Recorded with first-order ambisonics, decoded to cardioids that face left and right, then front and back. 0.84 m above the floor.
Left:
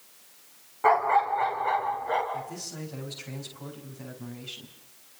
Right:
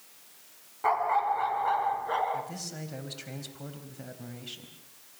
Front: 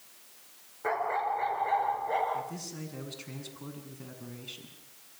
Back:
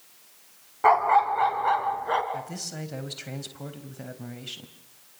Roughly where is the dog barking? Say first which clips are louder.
Left 4 dB, back 11 dB; behind.